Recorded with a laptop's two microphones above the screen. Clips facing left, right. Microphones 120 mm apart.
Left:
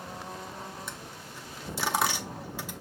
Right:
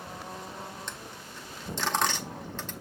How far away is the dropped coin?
About 0.6 m.